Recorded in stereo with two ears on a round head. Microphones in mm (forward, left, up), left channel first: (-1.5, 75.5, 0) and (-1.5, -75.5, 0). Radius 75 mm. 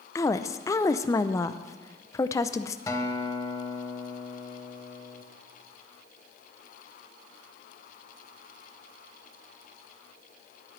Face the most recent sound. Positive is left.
turn(degrees=20)  # may be behind; listen again after turning